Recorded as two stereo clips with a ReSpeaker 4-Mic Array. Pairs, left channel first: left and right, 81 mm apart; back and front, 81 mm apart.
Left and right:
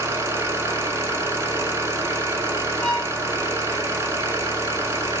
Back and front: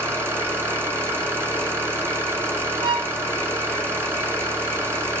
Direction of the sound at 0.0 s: 45° right.